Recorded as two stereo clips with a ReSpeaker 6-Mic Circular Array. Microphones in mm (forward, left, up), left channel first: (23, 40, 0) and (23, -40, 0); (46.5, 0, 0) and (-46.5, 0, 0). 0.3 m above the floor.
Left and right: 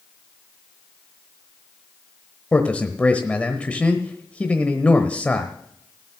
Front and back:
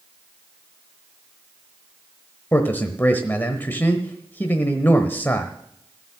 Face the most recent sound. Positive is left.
turn(degrees=35)